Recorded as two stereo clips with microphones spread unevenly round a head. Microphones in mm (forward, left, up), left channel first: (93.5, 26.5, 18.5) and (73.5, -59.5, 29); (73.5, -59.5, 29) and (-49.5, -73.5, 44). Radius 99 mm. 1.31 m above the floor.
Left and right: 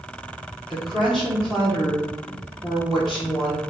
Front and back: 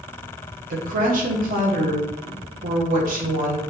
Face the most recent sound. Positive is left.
turn(degrees=165)